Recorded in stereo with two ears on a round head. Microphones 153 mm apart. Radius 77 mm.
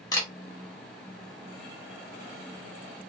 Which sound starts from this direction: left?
A camera shutter, at 0.1 s.